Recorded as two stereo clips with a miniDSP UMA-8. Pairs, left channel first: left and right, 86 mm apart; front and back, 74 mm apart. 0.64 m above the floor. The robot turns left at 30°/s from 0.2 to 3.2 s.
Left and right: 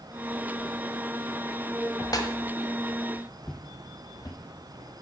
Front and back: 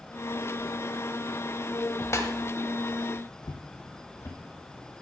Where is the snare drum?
50° left, 1.2 m; by 2.3 s 45° left, 1.2 m.